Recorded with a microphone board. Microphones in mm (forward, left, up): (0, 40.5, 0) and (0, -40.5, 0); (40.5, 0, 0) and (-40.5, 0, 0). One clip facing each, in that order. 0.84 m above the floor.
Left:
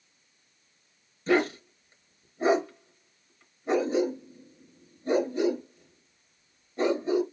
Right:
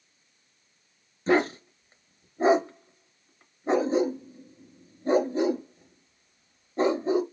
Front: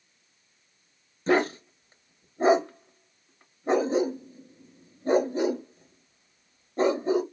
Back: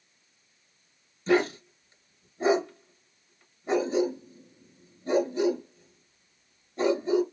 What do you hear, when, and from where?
1.3 s a dog barking: 40° right, 0.8 m